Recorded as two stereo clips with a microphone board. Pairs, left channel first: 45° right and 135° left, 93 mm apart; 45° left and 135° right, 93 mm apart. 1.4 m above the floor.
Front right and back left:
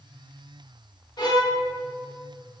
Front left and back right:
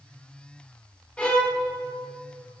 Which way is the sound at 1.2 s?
30° right.